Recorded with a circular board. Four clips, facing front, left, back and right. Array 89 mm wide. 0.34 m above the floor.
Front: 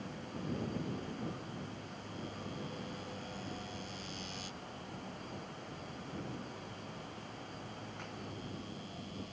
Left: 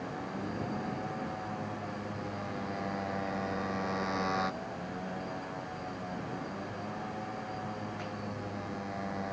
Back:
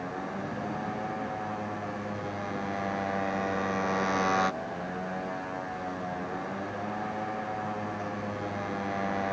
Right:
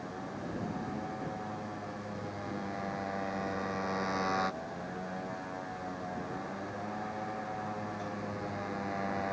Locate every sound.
0.0 s a motorcycle: 175° left; by 9.3 s 165° right